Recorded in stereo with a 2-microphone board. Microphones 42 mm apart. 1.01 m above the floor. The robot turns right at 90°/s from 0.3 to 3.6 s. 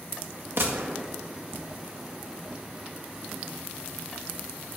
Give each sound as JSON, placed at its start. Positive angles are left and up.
{"t": 0.6, "sound": "a gunshot", "azimuth_deg": -80, "distance_m": 1.5}